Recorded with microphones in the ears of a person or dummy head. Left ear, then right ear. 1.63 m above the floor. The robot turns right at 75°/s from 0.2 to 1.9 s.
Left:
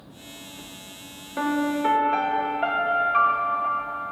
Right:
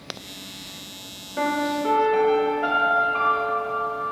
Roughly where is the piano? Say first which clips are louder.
Right 1 dB; ahead left.